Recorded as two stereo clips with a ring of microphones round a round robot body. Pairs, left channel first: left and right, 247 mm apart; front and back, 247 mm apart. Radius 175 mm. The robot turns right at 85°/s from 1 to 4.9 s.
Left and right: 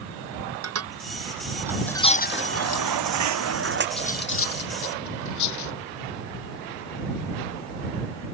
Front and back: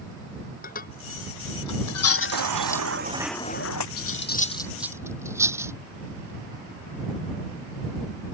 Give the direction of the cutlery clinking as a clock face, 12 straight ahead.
11 o'clock.